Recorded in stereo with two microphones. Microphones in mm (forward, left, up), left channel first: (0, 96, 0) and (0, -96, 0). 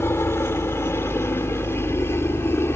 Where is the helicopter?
10° left (ahead or behind).